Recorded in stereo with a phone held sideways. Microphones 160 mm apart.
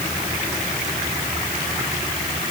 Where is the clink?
I don't hear a clink.